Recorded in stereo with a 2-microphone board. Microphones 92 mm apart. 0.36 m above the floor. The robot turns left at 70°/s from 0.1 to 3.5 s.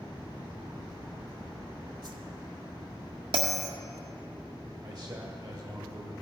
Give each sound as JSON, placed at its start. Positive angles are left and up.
{"t": 2.0, "sound": "a whoosh", "side_deg": -45, "distance_m": 0.9}
{"t": 3.3, "sound": "a bell", "side_deg": -80, "distance_m": 1.8}
{"t": 4.8, "sound": "a man speaking", "side_deg": -45, "distance_m": 1.3}